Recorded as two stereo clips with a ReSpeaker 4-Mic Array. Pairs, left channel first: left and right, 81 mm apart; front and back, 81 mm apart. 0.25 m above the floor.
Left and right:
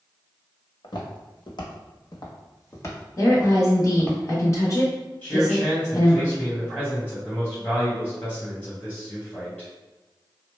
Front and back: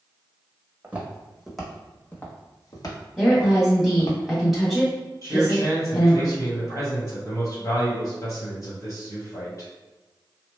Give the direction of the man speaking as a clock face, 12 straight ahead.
11 o'clock.